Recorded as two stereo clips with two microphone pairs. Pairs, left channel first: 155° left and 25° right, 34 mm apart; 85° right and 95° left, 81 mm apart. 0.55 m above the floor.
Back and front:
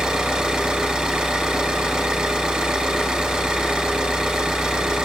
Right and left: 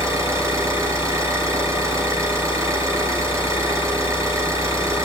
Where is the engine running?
45° left, 6 m.